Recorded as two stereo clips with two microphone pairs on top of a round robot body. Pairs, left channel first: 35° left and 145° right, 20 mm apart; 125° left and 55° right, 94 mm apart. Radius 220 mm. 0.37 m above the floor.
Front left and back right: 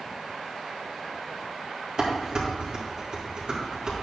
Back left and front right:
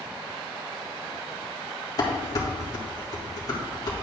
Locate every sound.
2.0 s dishes clattering: 175° left, 2.5 m